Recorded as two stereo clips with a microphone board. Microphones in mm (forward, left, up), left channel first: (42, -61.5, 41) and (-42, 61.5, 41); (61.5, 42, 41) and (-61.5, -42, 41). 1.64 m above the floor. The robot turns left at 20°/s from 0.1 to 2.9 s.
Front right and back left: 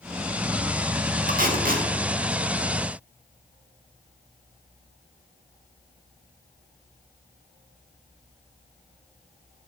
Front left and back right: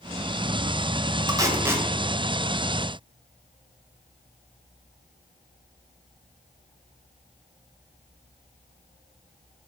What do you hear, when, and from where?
1.3 s tape being pulled: 150° left, 0.8 m; by 1.9 s 135° left, 0.8 m